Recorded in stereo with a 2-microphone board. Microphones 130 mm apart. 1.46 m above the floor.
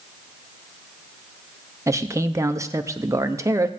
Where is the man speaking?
25° right (ahead or behind), 0.7 m.